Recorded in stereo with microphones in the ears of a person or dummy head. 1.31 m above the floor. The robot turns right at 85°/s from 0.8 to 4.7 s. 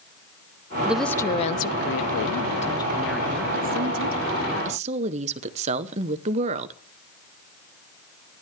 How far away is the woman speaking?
About 0.7 m.